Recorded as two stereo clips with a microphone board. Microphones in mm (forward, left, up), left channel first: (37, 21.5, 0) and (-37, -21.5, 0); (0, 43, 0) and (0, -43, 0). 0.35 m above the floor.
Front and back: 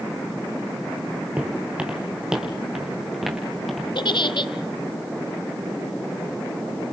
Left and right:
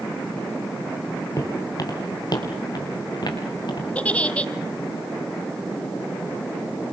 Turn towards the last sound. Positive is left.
turn(degrees=15)